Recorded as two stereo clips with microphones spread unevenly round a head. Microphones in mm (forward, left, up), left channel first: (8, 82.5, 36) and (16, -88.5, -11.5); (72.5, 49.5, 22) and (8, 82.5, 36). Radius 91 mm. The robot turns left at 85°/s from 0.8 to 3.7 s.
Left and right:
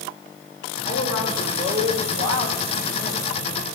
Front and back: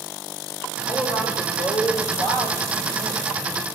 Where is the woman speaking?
50° left, 6 m; by 3.2 s 150° right, 6 m.